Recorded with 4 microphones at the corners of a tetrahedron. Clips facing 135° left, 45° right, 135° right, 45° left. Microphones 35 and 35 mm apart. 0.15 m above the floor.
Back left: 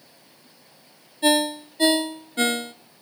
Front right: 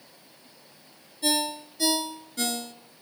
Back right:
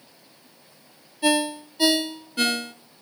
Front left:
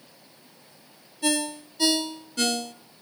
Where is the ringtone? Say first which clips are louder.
Back left 7 dB, back right 5 dB; 160° left, 0.8 m.